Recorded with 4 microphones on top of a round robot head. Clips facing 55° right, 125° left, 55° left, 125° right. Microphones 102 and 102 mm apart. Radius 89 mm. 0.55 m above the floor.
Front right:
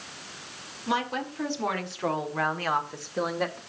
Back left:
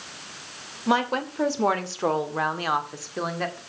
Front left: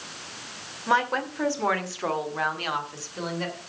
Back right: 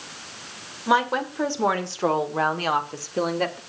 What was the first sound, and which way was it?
A woman speaking, 155° left.